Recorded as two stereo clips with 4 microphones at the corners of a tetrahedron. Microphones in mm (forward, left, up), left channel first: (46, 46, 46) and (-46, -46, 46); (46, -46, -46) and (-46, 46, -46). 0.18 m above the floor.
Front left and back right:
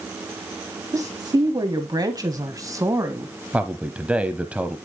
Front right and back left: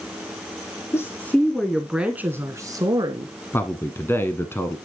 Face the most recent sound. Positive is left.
turn(degrees=-70)